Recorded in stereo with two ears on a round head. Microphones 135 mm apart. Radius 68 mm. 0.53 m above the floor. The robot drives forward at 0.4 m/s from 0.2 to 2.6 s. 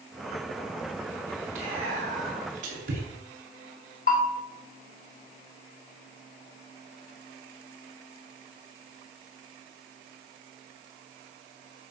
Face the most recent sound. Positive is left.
turn(degrees=60)  # may be behind; listen again after turning